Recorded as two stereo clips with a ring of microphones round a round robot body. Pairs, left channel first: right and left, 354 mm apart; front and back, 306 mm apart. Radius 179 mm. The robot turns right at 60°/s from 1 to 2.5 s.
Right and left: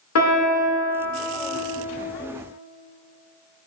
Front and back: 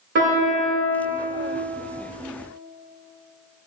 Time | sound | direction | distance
0.1 | a piano | 125° right | 1.1 m